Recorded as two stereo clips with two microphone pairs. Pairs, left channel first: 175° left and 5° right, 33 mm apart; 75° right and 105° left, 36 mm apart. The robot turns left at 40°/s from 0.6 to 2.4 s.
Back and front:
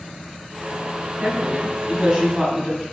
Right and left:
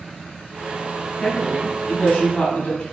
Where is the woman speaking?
25° right, 1.7 m; by 2.8 s 70° right, 1.7 m.